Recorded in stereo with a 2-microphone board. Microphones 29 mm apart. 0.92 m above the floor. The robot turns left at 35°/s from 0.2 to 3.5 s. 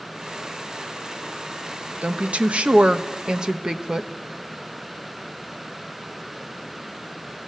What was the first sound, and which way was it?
A woman speaking, 100° right.